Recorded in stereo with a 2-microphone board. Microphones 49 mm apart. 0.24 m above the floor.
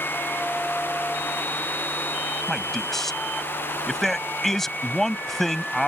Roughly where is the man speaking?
Centre.